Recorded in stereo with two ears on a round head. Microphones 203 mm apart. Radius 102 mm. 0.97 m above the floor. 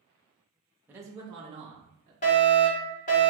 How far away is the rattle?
No rattle in this recording.